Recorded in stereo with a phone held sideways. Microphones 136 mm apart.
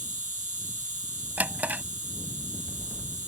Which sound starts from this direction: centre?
A drawer, at 1.4 s.